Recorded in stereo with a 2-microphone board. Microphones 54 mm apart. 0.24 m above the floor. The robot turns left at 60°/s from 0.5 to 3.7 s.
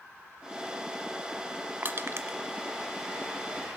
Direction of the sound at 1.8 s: 40° right (ahead or behind).